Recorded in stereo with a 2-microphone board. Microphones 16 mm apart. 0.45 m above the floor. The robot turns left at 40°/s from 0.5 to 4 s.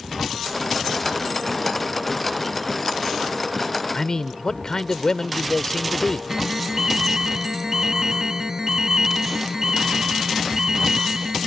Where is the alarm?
30° right (ahead or behind).